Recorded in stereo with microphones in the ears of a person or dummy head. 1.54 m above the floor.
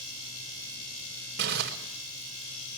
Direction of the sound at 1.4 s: 50° right (ahead or behind).